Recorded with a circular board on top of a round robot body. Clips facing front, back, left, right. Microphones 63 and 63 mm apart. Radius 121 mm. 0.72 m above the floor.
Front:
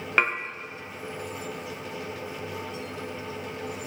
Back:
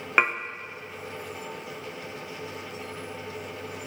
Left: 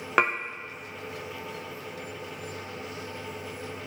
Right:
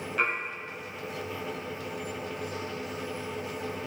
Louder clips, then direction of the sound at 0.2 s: Back 1 dB, left 5 dB; 105° left.